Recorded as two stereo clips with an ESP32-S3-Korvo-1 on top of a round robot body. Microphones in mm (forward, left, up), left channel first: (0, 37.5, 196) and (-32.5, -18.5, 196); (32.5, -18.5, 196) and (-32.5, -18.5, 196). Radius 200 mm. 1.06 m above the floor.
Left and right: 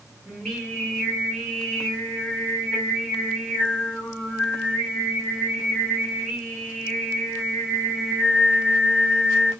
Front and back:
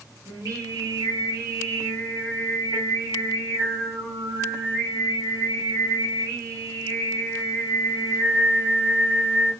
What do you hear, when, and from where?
0.3 s singing: 145° left, 1.6 m